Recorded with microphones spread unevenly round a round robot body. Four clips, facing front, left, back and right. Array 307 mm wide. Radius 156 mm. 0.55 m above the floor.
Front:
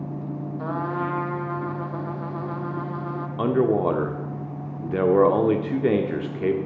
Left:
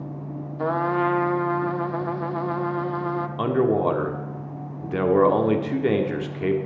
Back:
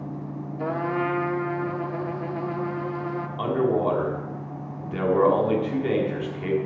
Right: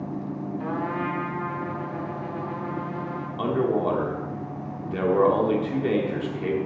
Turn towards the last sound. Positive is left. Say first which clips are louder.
# left 2 dB, front 3 dB
turn(degrees=20)